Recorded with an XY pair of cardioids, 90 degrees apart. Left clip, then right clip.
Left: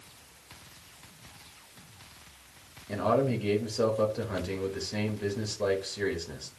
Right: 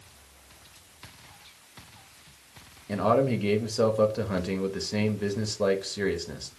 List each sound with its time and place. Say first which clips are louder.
2.9 s a man speaking: right 3 dB; 35° right, 1.1 m